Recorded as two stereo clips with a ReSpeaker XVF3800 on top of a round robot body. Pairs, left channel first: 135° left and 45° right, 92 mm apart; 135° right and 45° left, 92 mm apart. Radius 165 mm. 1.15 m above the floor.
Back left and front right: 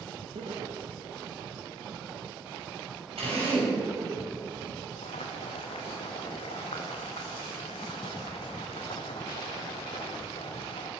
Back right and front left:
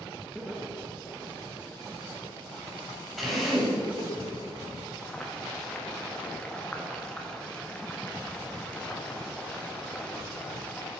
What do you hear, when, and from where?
0.3 s laughter: 40° right, 2.5 m; by 4.2 s 115° right, 2 m
3.2 s a drill: 45° right, 6.5 m
5.0 s boiling: 145° left, 1.5 m